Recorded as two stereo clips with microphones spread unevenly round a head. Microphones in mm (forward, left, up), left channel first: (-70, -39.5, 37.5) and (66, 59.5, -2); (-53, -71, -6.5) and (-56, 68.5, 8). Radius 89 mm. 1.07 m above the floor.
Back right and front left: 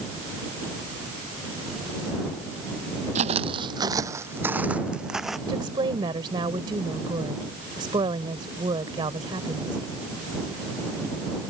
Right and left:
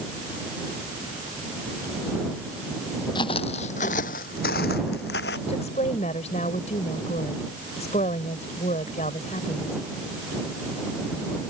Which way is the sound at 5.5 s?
30° right.